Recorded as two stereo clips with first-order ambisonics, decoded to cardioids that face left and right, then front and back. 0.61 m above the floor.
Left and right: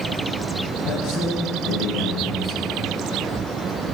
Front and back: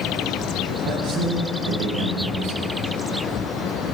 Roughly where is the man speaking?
Behind left.